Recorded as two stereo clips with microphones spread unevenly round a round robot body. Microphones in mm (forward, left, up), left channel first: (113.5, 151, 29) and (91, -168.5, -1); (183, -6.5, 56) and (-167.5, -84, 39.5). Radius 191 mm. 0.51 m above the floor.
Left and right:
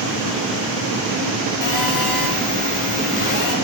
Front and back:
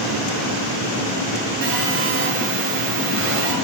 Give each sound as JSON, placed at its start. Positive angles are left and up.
{"t": 1.6, "sound": "a phone buzzing", "azimuth_deg": 135, "distance_m": 1.1}